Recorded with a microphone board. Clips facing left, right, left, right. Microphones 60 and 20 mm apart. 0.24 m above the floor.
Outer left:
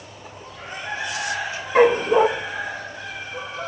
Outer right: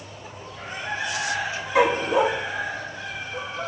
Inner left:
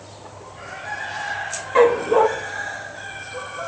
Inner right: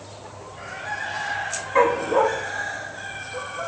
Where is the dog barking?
40° left (ahead or behind), 1.8 m.